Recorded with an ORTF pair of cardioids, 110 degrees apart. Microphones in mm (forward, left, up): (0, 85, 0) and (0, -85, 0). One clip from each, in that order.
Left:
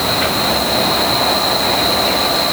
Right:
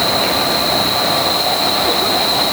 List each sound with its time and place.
Only background noise.